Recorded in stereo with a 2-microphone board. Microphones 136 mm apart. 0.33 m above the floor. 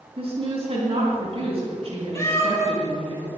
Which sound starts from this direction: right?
A woman speaking, at 0.2 s.